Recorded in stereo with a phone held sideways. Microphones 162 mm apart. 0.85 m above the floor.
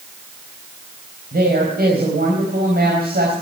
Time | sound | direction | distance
1.3 | a woman speaking | 75° right (ahead or behind) | 4 m